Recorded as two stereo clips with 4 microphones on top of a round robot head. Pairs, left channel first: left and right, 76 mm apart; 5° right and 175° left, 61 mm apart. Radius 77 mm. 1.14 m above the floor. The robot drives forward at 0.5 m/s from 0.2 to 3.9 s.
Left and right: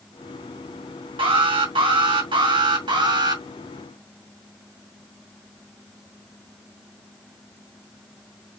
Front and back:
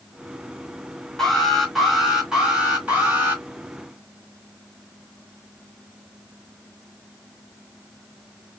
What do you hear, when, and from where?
1.2 s an alarm: 85° right, 2 m; by 3.4 s 115° right, 2.5 m